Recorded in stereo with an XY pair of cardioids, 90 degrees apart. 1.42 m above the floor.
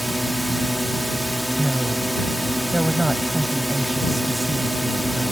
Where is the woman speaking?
5° right.